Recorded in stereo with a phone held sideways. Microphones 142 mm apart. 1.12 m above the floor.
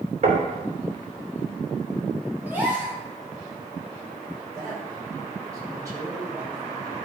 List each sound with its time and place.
0.2 s knocking: 55° right (ahead or behind), 3 m
2.5 s a gasp: 15° right (ahead or behind), 2.5 m
4.5 s a man speaking: 25° right (ahead or behind), 5 m